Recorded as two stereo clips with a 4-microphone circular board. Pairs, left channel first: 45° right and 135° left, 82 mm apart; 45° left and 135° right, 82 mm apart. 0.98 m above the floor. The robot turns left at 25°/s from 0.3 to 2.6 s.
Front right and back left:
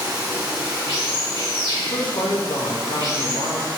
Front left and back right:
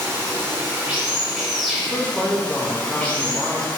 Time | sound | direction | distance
0.0 | running water | 170° left | 1.3 m
1.8 | a man speaking | 15° right | 0.8 m